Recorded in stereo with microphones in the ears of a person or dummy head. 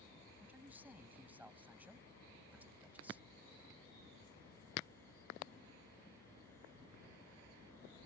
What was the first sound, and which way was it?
A man speaking, 10° right (ahead or behind).